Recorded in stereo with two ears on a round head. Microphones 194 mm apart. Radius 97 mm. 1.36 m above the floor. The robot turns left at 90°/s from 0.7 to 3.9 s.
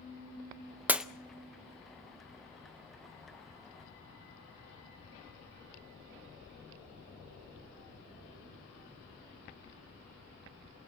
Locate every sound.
0.9 s breaking glass: 10° right (ahead or behind), 0.5 m; by 1.1 s centre (ahead or behind), 0.5 m